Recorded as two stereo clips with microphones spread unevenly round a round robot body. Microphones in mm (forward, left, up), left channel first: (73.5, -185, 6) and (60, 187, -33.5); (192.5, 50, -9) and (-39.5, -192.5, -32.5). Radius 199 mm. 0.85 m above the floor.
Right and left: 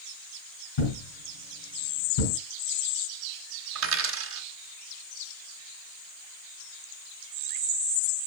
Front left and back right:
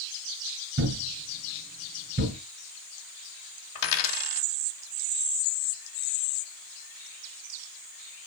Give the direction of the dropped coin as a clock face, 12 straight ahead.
11 o'clock.